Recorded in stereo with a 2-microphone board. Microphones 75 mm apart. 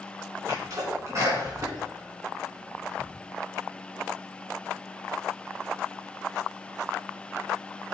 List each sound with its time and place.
0.5 s a sneeze: 45° right (ahead or behind), 3 m